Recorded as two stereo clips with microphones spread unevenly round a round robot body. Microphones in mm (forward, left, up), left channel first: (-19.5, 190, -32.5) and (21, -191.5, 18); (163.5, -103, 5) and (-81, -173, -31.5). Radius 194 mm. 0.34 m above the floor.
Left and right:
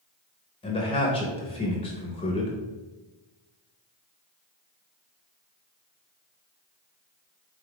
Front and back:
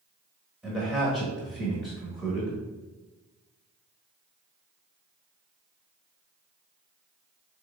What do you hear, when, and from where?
0.6 s a man speaking: 125° left, 0.9 m